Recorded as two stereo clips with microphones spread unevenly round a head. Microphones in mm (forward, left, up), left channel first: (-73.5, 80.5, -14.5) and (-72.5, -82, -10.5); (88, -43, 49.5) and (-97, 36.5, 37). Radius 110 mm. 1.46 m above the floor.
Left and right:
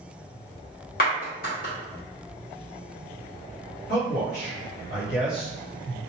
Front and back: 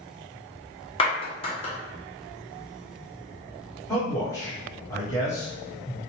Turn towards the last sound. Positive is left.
turn(degrees=55)